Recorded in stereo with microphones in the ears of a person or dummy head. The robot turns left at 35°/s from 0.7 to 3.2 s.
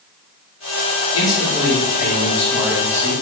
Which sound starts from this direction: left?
A man speaking, at 1.1 s.